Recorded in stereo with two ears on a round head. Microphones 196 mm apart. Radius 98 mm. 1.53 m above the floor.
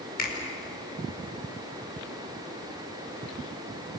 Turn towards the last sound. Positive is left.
turn(degrees=40)  # may be behind; listen again after turning